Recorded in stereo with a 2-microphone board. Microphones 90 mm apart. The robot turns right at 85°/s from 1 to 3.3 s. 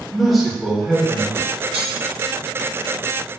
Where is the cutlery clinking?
65° right (ahead or behind), 1.8 m; by 1.9 s 80° right, 1.8 m.